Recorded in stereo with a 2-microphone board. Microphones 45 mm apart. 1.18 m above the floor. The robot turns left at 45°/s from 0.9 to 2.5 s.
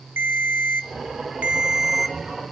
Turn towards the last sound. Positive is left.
turn(degrees=165)